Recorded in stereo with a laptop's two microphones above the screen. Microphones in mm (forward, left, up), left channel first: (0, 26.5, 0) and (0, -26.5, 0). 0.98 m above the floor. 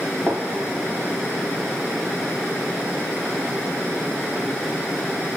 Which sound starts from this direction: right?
A gunshot, at 0.3 s.